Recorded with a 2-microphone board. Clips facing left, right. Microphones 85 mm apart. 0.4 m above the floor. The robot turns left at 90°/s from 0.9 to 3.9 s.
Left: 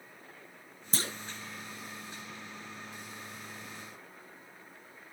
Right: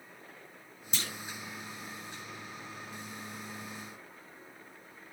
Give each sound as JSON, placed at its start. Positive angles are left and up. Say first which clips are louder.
{"t": 0.9, "sound": "a clunk", "louder": "left 3 dB", "side_deg": 40, "distance_m": 0.9}